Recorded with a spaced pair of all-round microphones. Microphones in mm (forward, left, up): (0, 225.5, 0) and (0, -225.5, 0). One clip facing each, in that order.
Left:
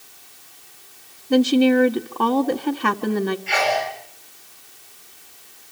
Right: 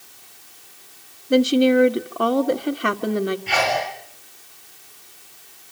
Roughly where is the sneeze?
Right.